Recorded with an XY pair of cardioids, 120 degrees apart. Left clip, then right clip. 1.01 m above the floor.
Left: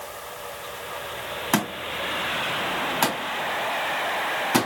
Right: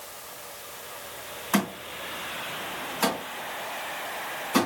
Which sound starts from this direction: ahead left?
A thud, at 1.5 s.